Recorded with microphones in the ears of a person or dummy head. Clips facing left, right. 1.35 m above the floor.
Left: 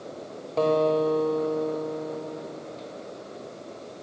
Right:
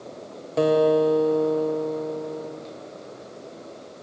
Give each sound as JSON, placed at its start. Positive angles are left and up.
{"t": 0.6, "sound": "a guitar", "side_deg": -15, "distance_m": 1.3}